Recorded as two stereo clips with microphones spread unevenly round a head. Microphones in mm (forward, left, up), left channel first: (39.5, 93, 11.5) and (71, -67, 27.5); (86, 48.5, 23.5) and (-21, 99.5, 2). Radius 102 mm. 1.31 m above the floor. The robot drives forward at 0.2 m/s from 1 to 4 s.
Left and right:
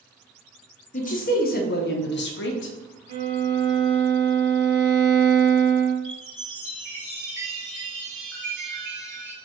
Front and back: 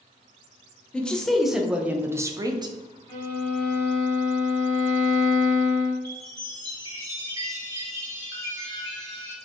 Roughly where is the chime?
Behind right.